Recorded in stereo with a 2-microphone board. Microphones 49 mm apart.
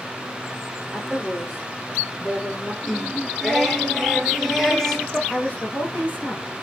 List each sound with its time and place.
0.9 s a woman speaking: 15° left (ahead or behind), 5.5 m; by 2.7 s 10° left (ahead or behind), 3.5 m
2.8 s singing: 5° left (ahead or behind), 1.5 m
5.3 s a woman speaking: 30° left (ahead or behind), 5 m